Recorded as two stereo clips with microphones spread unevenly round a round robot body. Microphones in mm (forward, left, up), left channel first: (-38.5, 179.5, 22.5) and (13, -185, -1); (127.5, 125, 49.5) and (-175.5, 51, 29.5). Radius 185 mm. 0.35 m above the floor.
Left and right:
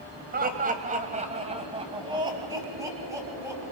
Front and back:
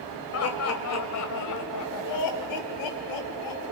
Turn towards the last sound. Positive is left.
turn(degrees=0)